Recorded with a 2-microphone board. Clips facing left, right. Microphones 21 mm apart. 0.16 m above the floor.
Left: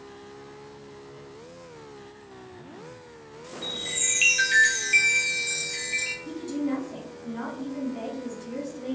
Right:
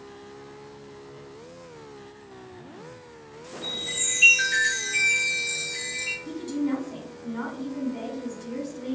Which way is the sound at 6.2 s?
10° right (ahead or behind).